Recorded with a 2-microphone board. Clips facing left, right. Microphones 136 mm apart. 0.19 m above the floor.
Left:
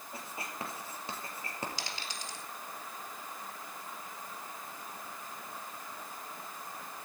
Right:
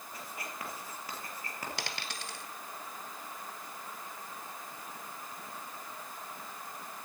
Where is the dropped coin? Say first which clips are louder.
Right 1 dB; 65° right (ahead or behind), 1.8 m.